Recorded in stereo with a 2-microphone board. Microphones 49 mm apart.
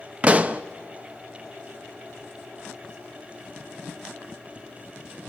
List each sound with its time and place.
0.2 s a pop: 25° right (ahead or behind), 0.7 m